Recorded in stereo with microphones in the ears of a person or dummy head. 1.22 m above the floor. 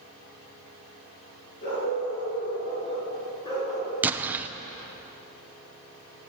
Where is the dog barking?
45° left (ahead or behind), 7.5 m; by 3.9 s 20° left (ahead or behind), 5.5 m.